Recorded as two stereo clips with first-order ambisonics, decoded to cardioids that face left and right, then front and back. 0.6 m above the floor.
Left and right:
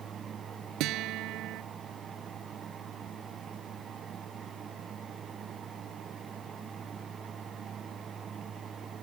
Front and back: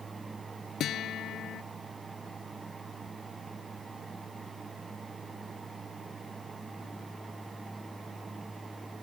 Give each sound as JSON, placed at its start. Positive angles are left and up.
{"t": 0.8, "sound": "a guitar", "azimuth_deg": -55}